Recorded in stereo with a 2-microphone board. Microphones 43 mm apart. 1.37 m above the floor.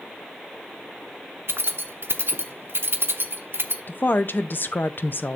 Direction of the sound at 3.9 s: 50° left (ahead or behind).